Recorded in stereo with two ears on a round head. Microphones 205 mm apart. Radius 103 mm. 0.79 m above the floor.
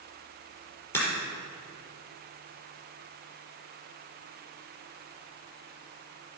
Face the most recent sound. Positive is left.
turn(degrees=10)  # may be behind; listen again after turning